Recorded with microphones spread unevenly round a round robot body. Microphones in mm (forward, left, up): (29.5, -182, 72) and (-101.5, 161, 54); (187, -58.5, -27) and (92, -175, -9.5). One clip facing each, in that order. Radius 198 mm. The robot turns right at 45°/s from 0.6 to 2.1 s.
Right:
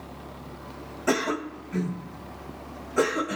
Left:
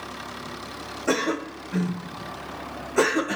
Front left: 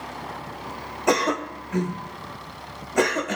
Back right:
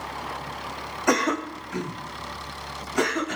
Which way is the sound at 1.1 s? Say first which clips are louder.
Left 1 dB, front left 1 dB; 5° right.